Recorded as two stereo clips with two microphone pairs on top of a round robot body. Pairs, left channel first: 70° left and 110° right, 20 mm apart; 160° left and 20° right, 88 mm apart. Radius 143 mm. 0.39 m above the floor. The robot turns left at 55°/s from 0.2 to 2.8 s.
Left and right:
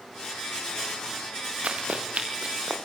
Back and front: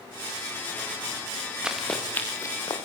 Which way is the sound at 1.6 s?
100° right.